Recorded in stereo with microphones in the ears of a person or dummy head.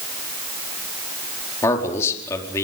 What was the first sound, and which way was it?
A man speaking, 15° left (ahead or behind).